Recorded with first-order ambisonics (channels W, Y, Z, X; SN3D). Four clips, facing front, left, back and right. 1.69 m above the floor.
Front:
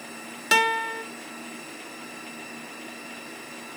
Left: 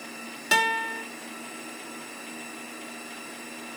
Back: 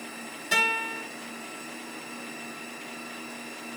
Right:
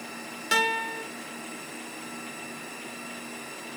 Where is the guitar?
10° left, 1.8 m.